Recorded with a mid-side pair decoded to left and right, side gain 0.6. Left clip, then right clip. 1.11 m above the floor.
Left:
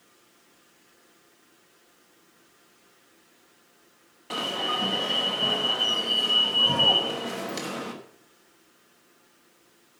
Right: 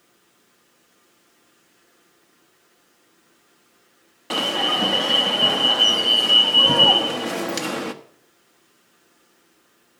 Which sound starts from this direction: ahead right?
An alarm, at 4.3 s.